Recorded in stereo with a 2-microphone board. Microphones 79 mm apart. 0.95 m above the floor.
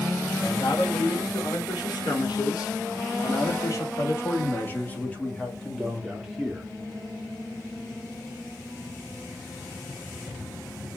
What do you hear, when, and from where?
0.4 s a man speaking: 80° left, 3.5 m; by 6.7 s 5° right (ahead or behind), 2.5 m